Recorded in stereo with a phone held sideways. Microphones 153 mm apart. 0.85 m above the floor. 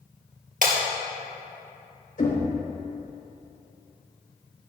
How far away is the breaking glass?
About 3 m.